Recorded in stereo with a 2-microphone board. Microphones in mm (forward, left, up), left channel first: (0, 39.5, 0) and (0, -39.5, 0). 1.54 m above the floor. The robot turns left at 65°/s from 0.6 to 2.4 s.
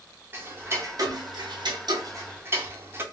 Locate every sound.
0.3 s ticking: 25° right (ahead or behind), 0.8 m; by 3.0 s 30° right (ahead or behind), 0.8 m